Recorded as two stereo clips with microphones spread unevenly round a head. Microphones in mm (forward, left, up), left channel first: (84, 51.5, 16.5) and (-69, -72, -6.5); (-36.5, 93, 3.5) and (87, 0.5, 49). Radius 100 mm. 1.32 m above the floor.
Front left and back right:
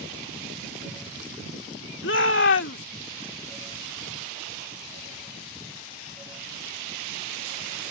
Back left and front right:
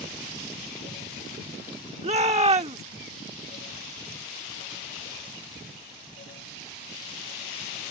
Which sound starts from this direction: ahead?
A shout, at 2.0 s.